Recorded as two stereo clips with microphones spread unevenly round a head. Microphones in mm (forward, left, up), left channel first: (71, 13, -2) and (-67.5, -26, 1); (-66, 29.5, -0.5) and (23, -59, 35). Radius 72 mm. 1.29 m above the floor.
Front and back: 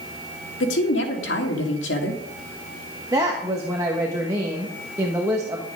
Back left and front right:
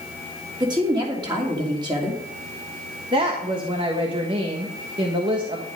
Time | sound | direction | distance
0.6 | a woman speaking | 15° left | 2.5 m
3.1 | a woman speaking | 95° right | 1.4 m